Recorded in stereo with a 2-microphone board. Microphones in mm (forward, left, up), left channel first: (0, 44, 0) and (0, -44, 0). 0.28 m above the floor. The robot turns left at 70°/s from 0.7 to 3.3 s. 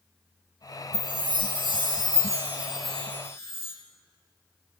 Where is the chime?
45° right, 1.8 m; by 3.7 s 145° left, 1.8 m.